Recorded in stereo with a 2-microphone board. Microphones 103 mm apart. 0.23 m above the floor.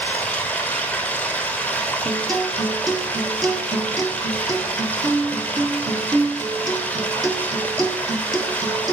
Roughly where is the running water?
Centre.